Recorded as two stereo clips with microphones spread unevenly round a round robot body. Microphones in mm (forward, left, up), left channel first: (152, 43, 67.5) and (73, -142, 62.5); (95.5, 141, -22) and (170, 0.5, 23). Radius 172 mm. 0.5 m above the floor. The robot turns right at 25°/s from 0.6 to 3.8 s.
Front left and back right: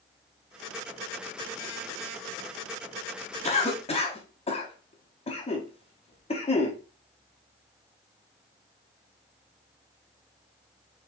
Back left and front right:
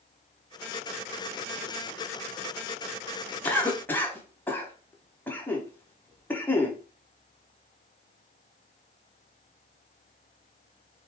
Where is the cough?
85° left, 0.9 m; by 6.8 s 95° left, 0.9 m.